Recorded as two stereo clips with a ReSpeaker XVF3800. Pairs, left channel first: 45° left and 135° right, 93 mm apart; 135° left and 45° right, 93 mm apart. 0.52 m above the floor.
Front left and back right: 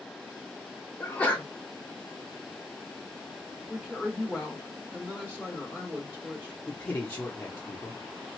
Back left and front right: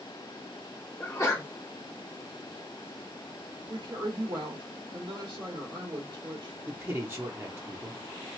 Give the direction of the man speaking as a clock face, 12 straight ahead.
12 o'clock.